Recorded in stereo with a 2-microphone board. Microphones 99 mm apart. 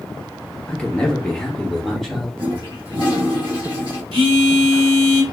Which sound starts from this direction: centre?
A man speaking, at 0.7 s.